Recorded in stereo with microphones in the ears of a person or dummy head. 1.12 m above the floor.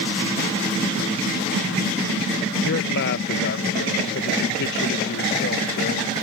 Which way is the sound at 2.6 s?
65° left (ahead or behind).